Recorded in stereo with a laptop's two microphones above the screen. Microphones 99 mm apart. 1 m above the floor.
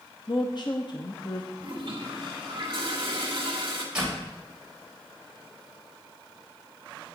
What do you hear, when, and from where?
0.3 s a woman speaking: 50° left (ahead or behind), 0.8 m
1.6 s a toilet flushing: 50° right (ahead or behind), 2 m
4.0 s a door slam: 10° right (ahead or behind), 3.5 m